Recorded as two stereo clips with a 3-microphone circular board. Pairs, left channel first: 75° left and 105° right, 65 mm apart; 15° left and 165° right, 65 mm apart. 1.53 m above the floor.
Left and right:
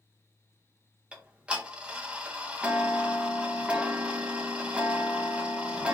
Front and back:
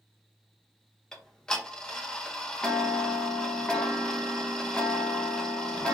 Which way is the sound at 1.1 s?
50° right.